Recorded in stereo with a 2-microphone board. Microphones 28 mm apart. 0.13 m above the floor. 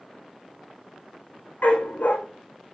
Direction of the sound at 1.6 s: 70° left (ahead or behind).